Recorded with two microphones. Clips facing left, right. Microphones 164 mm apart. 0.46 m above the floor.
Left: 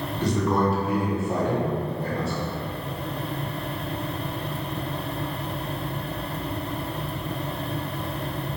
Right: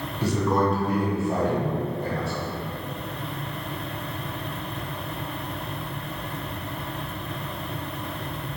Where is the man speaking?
10° right (ahead or behind), 0.8 m; by 2.3 s 25° left (ahead or behind), 1.5 m.